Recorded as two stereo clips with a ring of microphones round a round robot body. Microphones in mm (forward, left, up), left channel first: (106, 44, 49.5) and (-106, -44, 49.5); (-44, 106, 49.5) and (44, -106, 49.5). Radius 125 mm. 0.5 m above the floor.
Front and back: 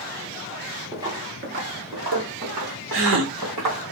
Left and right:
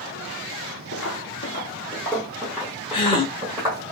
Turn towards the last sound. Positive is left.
turn(degrees=180)